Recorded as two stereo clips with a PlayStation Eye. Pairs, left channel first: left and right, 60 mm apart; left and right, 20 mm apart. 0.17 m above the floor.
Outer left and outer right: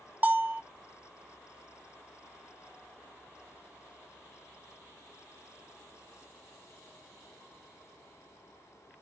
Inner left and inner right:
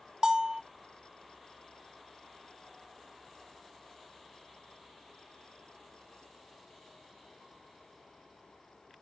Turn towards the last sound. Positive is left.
turn(degrees=-30)  # may be behind; listen again after turning